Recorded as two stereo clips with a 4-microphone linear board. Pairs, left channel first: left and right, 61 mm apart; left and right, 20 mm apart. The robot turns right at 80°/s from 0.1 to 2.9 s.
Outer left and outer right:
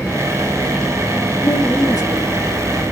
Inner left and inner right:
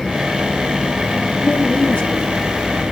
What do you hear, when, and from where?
1.4 s a woman speaking: 65° left, 3 m; by 2.3 s 130° left, 3 m